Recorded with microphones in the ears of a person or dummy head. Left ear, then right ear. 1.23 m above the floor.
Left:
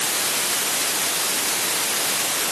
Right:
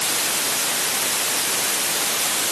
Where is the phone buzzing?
No phone buzzing in this recording.